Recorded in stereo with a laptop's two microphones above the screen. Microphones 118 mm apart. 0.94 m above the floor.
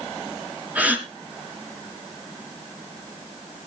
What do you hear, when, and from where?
0.8 s a gasp: 15° right (ahead or behind), 4 m